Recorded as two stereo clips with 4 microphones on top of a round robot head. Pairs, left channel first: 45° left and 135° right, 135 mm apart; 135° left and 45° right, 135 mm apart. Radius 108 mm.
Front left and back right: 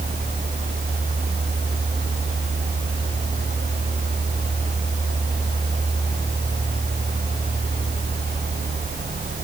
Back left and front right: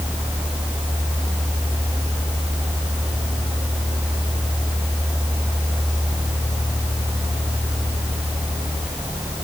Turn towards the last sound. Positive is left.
No sound to turn to.